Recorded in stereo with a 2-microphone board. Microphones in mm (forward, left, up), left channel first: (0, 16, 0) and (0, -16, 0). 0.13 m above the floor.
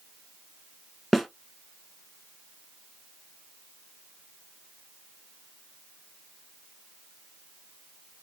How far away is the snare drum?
About 0.7 m.